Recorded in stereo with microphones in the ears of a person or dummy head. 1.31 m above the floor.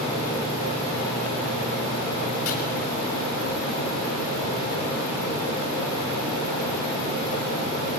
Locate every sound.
2.5 s chopping: 75° left (ahead or behind), 5.5 m